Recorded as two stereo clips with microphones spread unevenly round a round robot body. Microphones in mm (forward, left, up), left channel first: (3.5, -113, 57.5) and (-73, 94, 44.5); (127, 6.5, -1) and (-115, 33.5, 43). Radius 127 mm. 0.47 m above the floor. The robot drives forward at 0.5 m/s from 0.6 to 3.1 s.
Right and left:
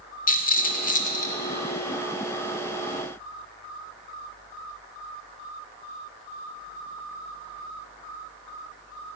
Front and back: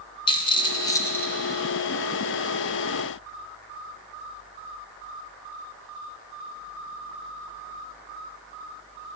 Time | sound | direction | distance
0.3 | a rattle | 45° right | 1.6 m